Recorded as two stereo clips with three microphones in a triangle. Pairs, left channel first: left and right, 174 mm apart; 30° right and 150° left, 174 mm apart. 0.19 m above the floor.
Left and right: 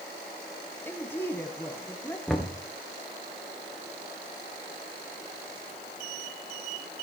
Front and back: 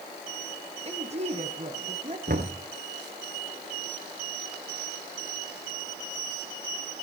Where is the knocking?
175° left, 1.8 m.